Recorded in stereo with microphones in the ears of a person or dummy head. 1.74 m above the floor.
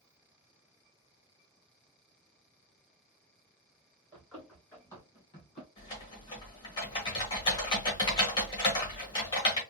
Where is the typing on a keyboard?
20° left (ahead or behind), 1.9 m.